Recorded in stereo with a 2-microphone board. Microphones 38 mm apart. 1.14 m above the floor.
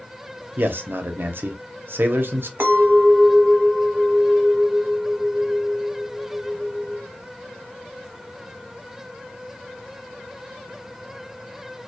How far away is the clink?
About 0.8 m.